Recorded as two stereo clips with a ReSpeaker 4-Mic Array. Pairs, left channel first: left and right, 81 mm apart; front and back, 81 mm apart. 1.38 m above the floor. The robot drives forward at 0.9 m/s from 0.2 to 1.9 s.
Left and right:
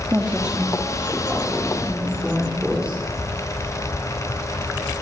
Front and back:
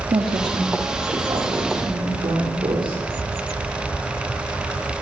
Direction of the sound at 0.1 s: 165° right.